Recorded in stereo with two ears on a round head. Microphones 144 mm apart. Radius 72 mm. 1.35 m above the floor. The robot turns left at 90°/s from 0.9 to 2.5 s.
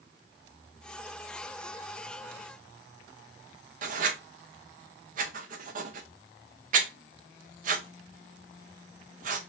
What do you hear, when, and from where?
3.8 s writing: 50° right (ahead or behind), 0.7 m